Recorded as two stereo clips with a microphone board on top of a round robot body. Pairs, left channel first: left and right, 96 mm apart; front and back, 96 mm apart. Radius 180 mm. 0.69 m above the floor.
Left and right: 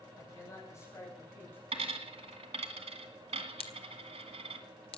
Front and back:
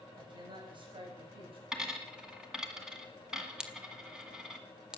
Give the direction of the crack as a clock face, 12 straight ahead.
9 o'clock.